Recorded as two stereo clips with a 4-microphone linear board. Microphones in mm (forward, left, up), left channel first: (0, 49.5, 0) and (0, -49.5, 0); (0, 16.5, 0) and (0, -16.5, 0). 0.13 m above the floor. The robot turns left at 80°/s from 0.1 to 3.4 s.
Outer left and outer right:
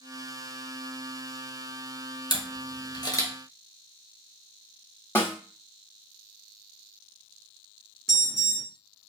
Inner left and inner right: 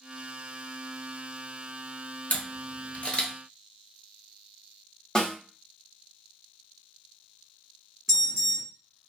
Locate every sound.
2.3 s a camera shutter: 50° left (ahead or behind), 1.0 m; by 3.3 s 30° left (ahead or behind), 1.0 m
5.2 s a snare drum: 25° left (ahead or behind), 1.3 m
8.1 s an alarm: 5° left (ahead or behind), 1.6 m